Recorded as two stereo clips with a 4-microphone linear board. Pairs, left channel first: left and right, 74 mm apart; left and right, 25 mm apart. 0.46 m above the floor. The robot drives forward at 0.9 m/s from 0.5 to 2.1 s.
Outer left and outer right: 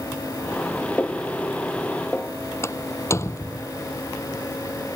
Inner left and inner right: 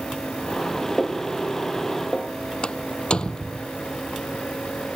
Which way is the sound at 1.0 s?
25° left (ahead or behind).